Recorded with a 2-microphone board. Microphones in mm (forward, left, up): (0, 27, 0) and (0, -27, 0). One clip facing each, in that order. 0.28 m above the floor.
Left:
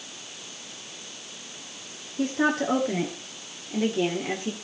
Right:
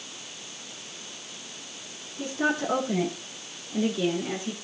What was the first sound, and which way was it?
A woman speaking, 75° left (ahead or behind).